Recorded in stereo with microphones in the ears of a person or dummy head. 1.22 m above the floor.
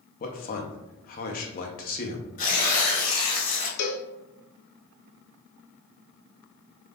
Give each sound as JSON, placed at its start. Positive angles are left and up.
{"t": 0.2, "sound": "a man speaking", "side_deg": 45, "distance_m": 0.7}
{"t": 2.4, "sound": "tearing paper", "side_deg": 45, "distance_m": 1.2}
{"t": 3.8, "sound": "a cowbell", "side_deg": 60, "distance_m": 0.6}